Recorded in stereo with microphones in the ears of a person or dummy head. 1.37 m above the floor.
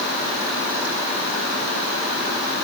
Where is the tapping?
I don't hear tapping.